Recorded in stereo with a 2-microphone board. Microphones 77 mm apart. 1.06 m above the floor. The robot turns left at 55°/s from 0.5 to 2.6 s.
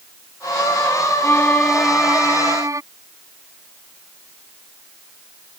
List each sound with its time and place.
1.2 s a violin: 30° left; by 2.8 s 45° right